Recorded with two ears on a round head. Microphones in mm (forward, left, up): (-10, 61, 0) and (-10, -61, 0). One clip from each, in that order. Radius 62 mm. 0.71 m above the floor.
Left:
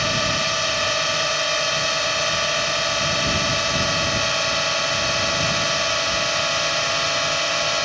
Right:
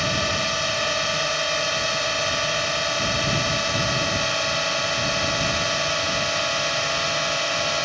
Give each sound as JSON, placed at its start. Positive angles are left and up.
{"t": 0.0, "sound": "a drone", "side_deg": 15}